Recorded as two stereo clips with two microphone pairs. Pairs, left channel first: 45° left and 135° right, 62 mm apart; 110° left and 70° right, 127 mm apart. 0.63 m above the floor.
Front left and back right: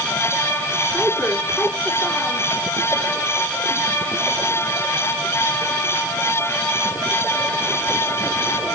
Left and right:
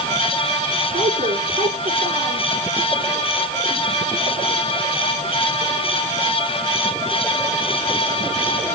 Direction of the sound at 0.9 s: 50° right.